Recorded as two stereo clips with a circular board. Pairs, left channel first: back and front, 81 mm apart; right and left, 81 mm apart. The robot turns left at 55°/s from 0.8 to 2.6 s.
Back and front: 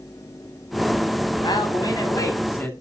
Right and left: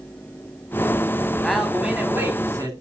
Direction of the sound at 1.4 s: 170° right.